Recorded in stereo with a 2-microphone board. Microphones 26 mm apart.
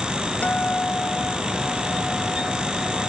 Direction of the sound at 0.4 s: 80° left.